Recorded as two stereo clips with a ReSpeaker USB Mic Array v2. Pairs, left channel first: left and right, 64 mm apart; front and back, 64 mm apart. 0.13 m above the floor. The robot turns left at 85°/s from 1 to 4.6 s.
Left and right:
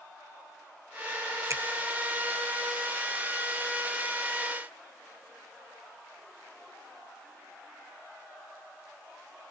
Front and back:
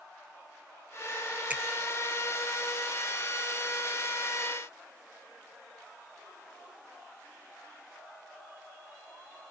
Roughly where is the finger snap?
Behind right.